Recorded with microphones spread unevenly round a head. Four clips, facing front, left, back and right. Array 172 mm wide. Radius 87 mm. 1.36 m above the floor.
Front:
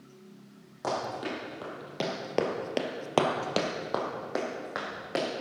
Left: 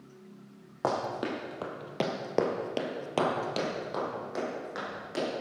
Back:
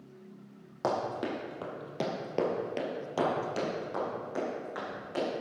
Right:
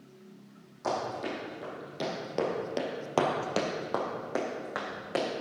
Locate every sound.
0.8 s running footsteps: 115° left, 3 m; by 5.2 s 35° right, 4 m